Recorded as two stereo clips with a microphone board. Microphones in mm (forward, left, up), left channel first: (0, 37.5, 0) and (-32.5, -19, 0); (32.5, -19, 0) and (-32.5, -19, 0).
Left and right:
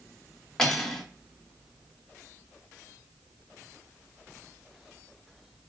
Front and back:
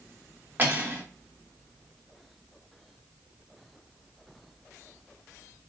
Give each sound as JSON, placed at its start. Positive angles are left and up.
{"t": 0.6, "sound": "cutlery clinking", "azimuth_deg": 140, "distance_m": 0.8}